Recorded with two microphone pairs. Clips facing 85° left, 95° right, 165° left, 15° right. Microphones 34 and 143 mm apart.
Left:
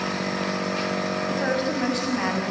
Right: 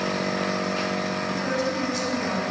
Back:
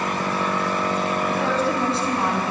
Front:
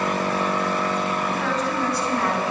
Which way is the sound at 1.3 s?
130° left.